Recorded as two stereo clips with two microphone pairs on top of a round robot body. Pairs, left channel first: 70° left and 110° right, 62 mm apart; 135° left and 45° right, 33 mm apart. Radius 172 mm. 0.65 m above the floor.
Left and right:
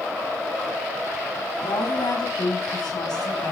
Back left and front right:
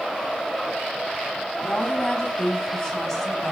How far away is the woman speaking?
About 5.5 m.